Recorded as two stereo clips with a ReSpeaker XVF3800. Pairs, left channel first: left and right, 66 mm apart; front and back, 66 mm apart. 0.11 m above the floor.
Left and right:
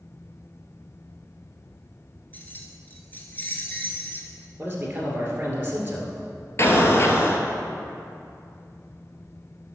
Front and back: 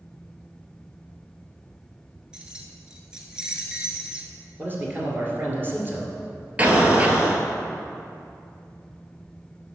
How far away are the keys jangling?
About 1.1 m.